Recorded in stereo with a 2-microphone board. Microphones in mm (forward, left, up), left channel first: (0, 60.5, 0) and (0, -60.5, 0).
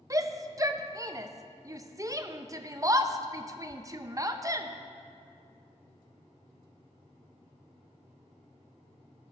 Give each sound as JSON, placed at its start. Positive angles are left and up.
{"t": 0.1, "sound": "a shout", "side_deg": -30, "distance_m": 0.6}